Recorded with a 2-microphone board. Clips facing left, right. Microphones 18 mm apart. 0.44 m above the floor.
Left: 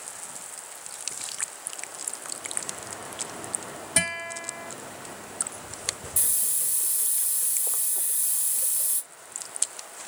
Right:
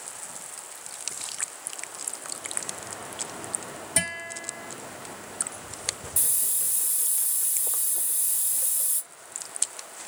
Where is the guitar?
15° left (ahead or behind), 1.6 m.